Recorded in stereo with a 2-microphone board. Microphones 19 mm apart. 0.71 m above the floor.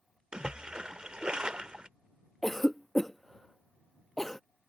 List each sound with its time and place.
0.3 s a splash: 60° right (ahead or behind)
2.4 s a cough: 20° left (ahead or behind)